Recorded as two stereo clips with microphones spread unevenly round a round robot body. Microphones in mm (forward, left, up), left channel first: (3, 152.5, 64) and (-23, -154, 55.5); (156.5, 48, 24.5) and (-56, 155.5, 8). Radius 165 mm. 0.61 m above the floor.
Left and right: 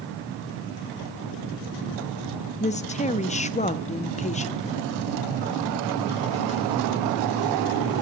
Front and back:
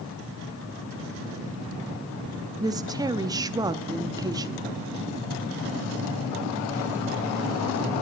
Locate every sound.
2.6 s a woman speaking: 120° left, 0.6 m